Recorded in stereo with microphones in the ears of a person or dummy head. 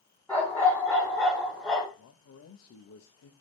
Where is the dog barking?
20° left (ahead or behind), 4.5 m; by 1.9 s 10° left (ahead or behind), 3.5 m.